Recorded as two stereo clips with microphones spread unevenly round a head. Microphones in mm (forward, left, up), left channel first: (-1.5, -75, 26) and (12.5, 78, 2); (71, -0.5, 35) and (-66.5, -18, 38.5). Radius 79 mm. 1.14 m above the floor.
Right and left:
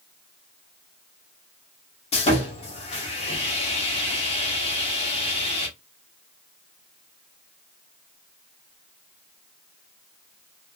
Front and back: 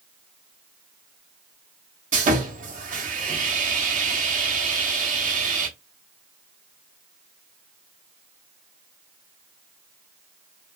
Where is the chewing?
I don't hear chewing.